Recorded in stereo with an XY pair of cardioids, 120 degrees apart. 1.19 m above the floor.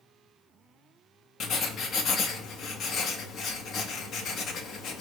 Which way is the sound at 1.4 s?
55° left.